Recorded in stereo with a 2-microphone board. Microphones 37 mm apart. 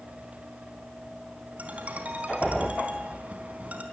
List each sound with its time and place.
1.6 s a ringtone: 40° right (ahead or behind), 4 m